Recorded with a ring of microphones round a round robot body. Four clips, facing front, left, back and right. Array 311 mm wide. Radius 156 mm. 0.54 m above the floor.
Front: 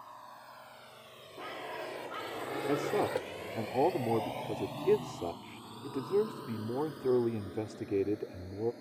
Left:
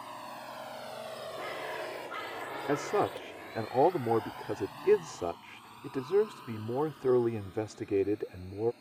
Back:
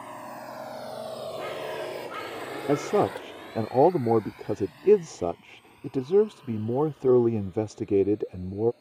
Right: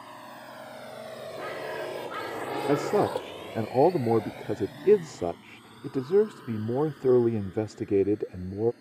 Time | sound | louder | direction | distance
0.0 | a drone | left 1 dB, back 11 dB | 170° right | ?
1.4 | a bird | right 5 dB, back 4 dB | 130° right | ?
2.7 | a man speaking | right 5 dB, back 8 dB | 145° right | ?